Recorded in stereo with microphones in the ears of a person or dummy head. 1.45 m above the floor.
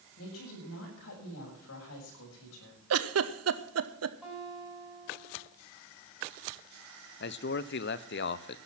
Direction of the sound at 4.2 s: Centre (ahead or behind).